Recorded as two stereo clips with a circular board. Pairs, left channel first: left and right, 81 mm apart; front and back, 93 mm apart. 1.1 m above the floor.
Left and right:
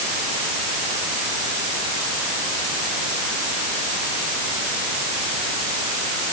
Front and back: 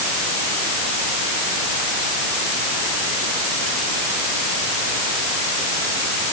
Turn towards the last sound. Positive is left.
No sound to turn to.